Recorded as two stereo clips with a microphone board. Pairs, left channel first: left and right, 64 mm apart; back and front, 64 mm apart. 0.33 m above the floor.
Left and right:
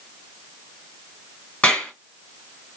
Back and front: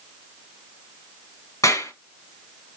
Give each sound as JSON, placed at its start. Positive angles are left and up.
{"t": 1.6, "sound": "a clap", "azimuth_deg": 160, "distance_m": 3.0}